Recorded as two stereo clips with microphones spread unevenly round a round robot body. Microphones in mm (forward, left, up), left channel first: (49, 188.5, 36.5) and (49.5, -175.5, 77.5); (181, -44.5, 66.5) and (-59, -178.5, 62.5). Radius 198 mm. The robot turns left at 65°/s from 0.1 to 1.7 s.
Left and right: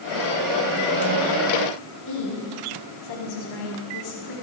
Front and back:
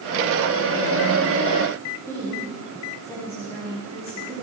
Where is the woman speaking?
110° left, 6 m.